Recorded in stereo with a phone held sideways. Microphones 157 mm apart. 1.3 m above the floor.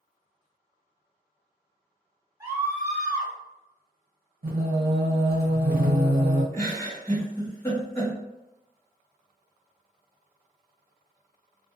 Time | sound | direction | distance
2.4 | a scream | 20° right (ahead or behind) | 1.2 m
4.4 | singing | 70° right (ahead or behind) | 0.8 m
6.5 | a giggle | 20° left (ahead or behind) | 1.1 m